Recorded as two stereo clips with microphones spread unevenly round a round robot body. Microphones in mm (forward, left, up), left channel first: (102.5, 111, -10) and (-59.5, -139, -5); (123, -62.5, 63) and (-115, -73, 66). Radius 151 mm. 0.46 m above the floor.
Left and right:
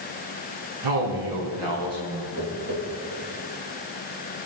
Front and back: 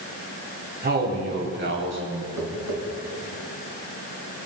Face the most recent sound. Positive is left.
turn(degrees=-175)